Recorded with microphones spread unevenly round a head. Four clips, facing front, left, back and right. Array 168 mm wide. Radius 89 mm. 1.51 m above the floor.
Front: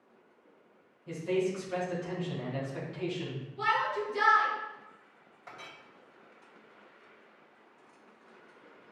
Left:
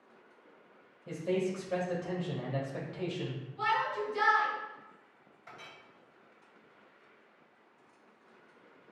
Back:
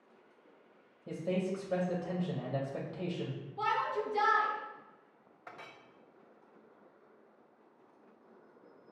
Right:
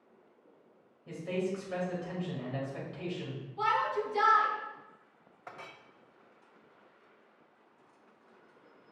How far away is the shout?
About 3 m.